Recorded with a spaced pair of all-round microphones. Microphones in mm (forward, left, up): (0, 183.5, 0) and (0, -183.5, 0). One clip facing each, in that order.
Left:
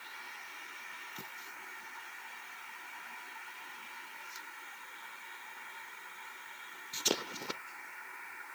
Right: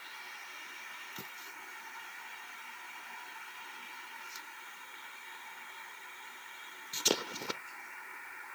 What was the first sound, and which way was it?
Only background noise.